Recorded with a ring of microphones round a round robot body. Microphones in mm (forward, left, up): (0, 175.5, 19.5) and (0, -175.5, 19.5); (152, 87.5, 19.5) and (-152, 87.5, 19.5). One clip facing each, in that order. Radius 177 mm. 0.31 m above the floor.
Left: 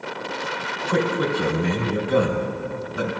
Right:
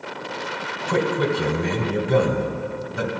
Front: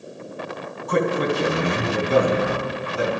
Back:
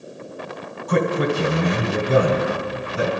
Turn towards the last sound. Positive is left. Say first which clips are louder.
# right 1 dB, back 1 dB
turn(degrees=-120)